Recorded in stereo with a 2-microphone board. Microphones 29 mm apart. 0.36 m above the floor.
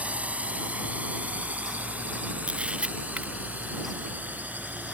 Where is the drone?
55° right (ahead or behind); by 4.9 s 70° right (ahead or behind).